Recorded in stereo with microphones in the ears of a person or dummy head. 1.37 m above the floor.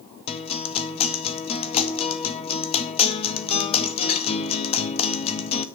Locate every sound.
0.3 s a guitar: 40° left (ahead or behind), 0.7 m